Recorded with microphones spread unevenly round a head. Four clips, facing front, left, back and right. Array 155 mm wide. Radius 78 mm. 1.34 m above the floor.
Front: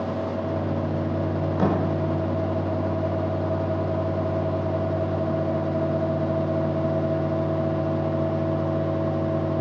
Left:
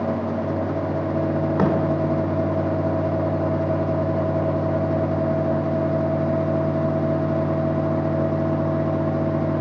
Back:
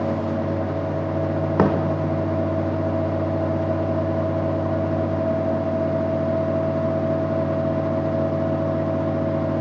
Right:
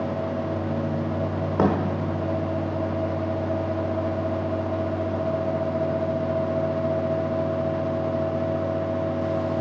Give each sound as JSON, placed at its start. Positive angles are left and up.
{"t": 1.6, "sound": "a thud", "azimuth_deg": -175, "distance_m": 1.4}